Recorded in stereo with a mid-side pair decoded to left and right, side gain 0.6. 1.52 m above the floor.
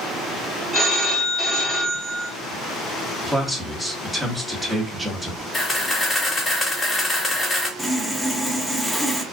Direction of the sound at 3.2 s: 5° right.